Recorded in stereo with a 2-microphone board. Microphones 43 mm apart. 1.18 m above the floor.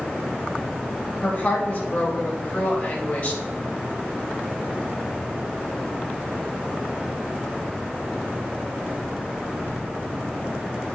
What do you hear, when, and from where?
1.2 s a woman speaking: 35° left (ahead or behind), 2.5 m